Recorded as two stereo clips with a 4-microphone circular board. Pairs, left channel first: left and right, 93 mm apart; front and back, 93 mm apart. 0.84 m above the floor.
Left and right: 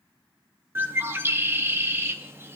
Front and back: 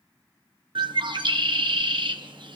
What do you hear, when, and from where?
0.8 s a bird: 155° right, 0.8 m